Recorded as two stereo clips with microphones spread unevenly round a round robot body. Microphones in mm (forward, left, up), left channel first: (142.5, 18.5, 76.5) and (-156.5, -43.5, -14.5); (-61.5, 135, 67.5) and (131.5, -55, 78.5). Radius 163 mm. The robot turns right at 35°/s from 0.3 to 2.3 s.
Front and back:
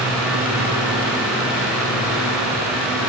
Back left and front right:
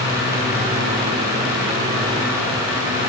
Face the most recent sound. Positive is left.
No sound to turn to.